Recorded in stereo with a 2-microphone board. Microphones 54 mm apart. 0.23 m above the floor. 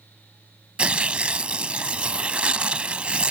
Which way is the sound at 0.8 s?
20° right (ahead or behind).